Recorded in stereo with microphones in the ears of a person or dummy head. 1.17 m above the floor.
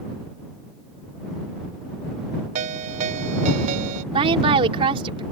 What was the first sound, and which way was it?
A ringtone, 40° right (ahead or behind).